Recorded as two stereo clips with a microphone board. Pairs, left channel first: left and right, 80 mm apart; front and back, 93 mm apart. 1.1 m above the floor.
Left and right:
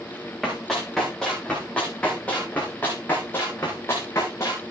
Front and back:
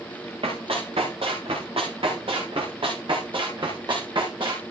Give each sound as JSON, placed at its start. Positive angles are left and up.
{"t": 0.4, "sound": "running footsteps", "azimuth_deg": 180, "distance_m": 6.0}